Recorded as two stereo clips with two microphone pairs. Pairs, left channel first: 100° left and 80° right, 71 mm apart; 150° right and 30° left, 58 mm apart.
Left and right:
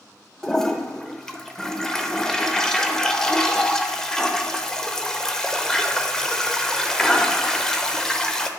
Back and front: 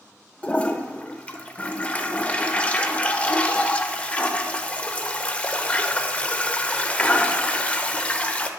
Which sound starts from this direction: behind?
A toilet flushing, at 0.4 s.